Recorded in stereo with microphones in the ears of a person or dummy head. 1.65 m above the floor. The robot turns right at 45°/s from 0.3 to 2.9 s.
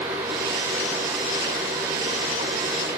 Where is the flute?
I don't hear a flute.